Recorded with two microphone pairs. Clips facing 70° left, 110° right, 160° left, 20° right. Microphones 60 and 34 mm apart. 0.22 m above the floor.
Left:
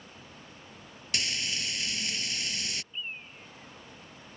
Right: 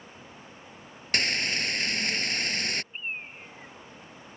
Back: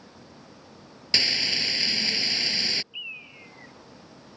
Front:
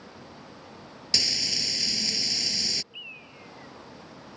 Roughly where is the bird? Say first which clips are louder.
Right 4 dB, back 4 dB; behind right.